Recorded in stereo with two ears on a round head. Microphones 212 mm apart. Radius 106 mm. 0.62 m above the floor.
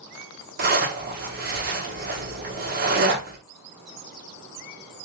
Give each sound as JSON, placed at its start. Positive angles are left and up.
{"t": 0.6, "sound": "a zipper", "side_deg": -40, "distance_m": 1.6}